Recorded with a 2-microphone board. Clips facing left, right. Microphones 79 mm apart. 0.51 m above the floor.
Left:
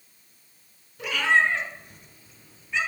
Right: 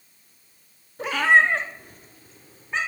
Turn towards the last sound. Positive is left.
turn(degrees=-40)  # may be behind; listen again after turning